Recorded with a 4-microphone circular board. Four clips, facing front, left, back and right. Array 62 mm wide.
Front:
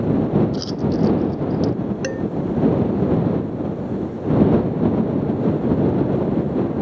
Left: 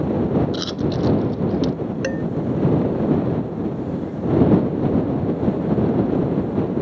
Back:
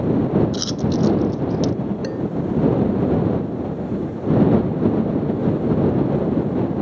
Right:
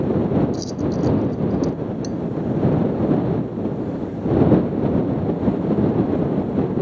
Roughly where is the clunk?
No clunk in this recording.